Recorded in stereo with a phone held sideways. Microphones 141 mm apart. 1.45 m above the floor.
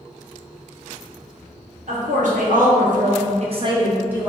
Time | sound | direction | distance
1.9 | a woman speaking | 60° right (ahead or behind) | 1.1 m